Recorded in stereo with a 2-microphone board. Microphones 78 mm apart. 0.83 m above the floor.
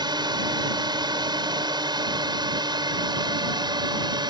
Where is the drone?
65° right (ahead or behind).